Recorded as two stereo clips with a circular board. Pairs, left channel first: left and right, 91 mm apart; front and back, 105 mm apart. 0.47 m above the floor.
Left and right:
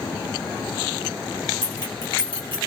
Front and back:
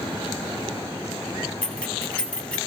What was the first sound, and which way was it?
Keys jangling, 80° right.